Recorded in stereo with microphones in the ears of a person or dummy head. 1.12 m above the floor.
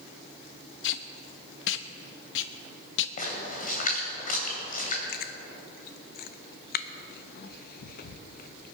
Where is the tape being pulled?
70° left (ahead or behind), 0.7 m.